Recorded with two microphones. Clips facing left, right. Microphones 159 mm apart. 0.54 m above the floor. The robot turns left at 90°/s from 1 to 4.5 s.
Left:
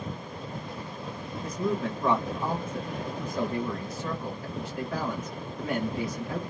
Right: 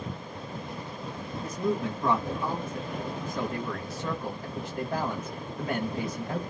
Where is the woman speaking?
125° right, 1.7 m; by 6.4 s 45° right, 1.7 m.